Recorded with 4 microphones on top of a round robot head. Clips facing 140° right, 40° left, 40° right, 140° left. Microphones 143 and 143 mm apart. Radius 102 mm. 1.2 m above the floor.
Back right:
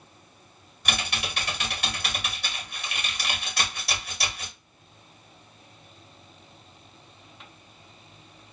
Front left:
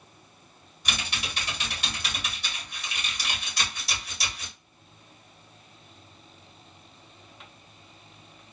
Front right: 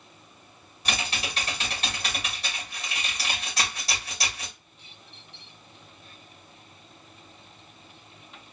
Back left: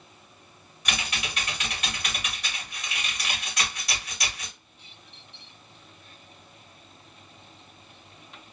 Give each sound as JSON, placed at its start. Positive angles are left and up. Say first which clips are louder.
{"t": 0.8, "sound": "typing on a keyboard", "louder": "back right 3 dB, front right 2 dB", "azimuth_deg": -100, "distance_m": 2.5}